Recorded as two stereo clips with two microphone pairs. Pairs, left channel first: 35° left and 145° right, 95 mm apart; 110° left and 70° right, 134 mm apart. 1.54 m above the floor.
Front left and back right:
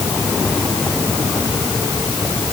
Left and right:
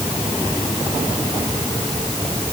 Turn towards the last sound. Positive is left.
No sound to turn to.